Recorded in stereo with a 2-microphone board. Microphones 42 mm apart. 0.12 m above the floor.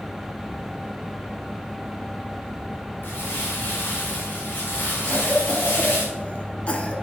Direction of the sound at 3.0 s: 65° left (ahead or behind).